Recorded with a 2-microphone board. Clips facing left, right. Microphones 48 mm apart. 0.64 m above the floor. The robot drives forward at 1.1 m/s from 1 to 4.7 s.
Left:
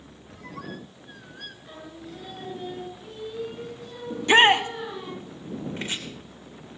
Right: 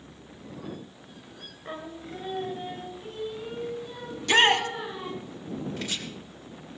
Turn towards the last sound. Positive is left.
turn(degrees=30)  # may be behind; listen again after turning